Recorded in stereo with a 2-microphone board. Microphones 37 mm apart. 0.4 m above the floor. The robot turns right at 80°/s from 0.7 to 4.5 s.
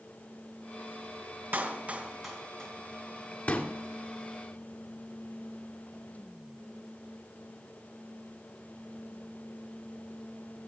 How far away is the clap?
About 3 m.